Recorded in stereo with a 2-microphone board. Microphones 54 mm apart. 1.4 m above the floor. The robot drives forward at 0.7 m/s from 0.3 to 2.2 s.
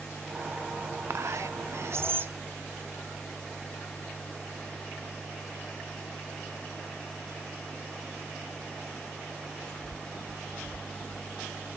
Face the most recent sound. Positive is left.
turn(degrees=-40)  # may be behind; listen again after turning